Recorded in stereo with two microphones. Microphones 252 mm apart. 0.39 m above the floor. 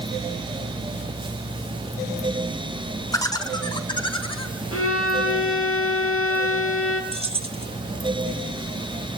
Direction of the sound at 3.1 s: 15° left (ahead or behind).